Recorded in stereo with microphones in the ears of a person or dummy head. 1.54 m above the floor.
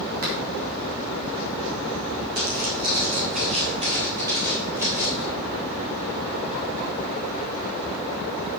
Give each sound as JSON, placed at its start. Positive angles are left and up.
{"t": 0.2, "sound": "a finger snap", "side_deg": -45, "distance_m": 4.0}
{"t": 2.4, "sound": "footsteps", "side_deg": -40, "distance_m": 2.5}